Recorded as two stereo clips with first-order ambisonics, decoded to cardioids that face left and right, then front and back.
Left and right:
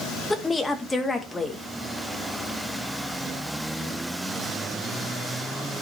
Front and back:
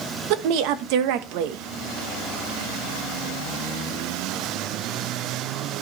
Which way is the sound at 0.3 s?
170° left.